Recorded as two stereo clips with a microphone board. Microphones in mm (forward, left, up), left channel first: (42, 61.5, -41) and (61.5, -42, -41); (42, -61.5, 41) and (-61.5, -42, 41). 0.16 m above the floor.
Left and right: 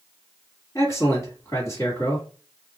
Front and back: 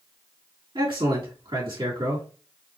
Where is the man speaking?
150° left, 3 m.